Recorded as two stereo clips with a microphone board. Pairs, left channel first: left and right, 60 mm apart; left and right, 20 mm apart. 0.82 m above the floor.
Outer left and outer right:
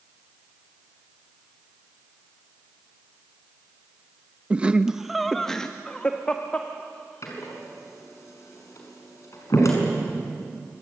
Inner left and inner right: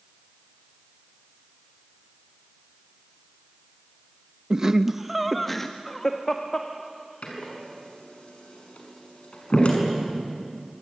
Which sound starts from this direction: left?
A door slam, at 7.2 s.